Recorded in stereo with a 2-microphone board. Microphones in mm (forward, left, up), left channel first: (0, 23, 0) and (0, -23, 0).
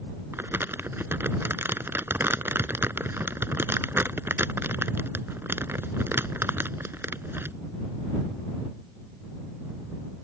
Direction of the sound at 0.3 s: 65° right (ahead or behind).